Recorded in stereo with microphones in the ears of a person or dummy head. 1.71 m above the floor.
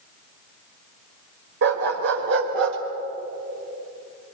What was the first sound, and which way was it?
A dog barking, 60° right (ahead or behind).